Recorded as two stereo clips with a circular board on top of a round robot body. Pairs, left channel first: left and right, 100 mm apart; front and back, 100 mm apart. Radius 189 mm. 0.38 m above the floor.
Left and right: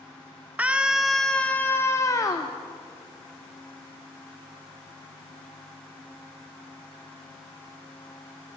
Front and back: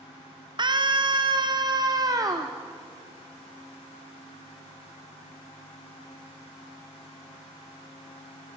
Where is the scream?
160° right, 1.5 m; by 2.5 s 130° left, 1.8 m.